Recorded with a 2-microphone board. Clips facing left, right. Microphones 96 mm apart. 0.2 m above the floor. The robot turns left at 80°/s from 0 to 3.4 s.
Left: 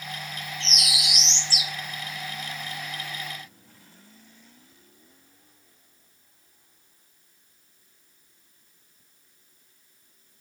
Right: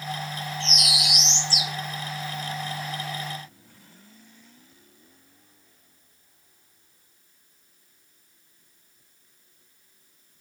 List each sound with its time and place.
0.6 s a bird: 20° left (ahead or behind), 1.4 m; by 1.7 s 10° left (ahead or behind), 1.4 m